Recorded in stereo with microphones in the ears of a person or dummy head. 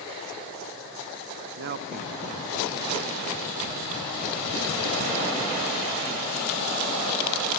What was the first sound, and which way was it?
A man speaking, 50° right (ahead or behind).